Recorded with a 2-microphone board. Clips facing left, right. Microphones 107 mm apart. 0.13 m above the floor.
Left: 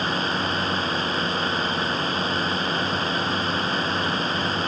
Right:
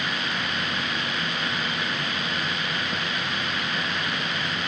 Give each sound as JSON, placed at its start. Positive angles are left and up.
{"t": 0.0, "sound": "a drone", "side_deg": 35}